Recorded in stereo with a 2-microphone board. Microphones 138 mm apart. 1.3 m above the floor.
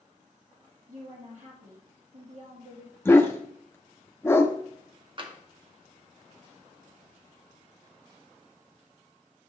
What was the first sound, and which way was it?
A woman speaking, 65° right (ahead or behind).